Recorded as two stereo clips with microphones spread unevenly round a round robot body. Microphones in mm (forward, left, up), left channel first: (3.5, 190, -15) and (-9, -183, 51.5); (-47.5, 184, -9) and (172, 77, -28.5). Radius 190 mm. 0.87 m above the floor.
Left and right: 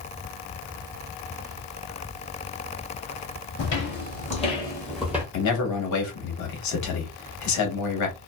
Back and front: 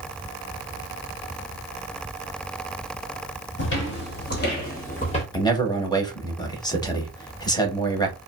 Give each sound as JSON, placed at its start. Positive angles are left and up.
{"t": 3.6, "sound": "footsteps", "azimuth_deg": 150, "distance_m": 1.4}
{"t": 5.3, "sound": "a man speaking", "azimuth_deg": 80, "distance_m": 1.1}